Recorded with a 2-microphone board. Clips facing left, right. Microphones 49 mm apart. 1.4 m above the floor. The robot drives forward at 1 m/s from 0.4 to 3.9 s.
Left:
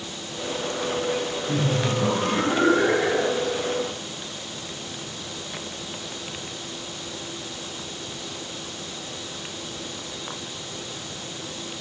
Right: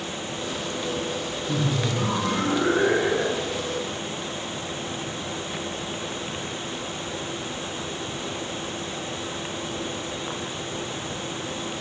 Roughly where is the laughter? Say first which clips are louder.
Left 1 dB; centre.